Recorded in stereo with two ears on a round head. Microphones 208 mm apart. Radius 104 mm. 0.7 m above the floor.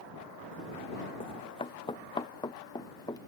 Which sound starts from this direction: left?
Running footsteps, at 1.2 s.